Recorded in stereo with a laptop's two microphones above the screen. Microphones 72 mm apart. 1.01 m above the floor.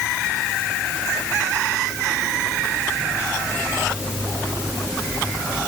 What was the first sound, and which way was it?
Only background noise.